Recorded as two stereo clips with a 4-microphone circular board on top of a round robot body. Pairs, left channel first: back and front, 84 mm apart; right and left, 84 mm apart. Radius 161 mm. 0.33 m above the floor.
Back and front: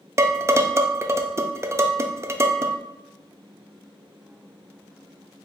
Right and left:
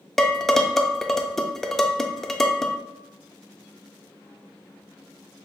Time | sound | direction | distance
0.2 | dishes clattering | 10° right | 0.5 m